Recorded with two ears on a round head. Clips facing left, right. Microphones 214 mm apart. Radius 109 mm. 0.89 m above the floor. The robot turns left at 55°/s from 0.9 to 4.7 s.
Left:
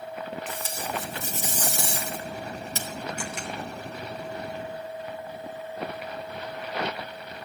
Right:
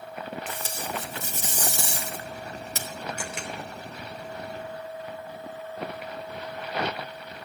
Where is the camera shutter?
75° right (ahead or behind), 3.5 m; by 3.5 s 55° right (ahead or behind), 3.5 m.